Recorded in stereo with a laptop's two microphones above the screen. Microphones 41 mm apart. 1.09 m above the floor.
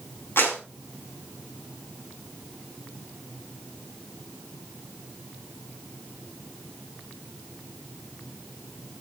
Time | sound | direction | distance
0.4 | a clap | 60° left (ahead or behind) | 7.5 m